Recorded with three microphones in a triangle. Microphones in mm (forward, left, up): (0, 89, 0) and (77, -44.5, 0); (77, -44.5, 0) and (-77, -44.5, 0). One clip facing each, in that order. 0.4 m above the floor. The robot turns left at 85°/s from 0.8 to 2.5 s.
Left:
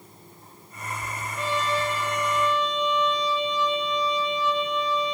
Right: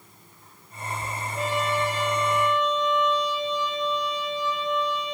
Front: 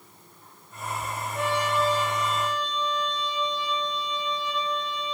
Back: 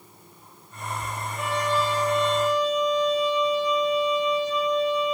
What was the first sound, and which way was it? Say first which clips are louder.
A trumpet: right 1 dB, even; straight ahead.